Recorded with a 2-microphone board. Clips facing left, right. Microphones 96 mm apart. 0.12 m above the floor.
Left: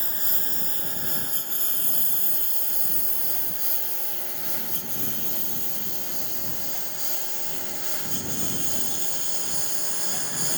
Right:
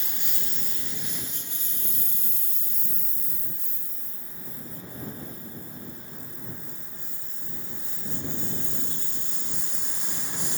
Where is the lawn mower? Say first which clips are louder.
Left 4 dB; 40° left (ahead or behind); by 10.6 s 65° left (ahead or behind).